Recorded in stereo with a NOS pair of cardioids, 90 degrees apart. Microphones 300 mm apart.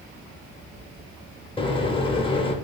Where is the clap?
No clap in this recording.